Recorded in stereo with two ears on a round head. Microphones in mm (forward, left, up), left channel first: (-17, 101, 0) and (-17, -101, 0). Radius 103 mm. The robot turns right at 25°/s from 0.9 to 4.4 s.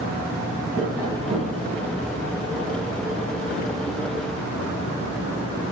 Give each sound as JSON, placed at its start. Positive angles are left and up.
{"t": 0.8, "sound": "tapping", "side_deg": -15, "distance_m": 5.0}